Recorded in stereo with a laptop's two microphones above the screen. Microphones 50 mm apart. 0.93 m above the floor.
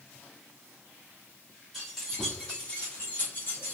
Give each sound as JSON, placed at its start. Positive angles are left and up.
{"t": 1.7, "sound": "keys jangling", "side_deg": 0, "distance_m": 1.7}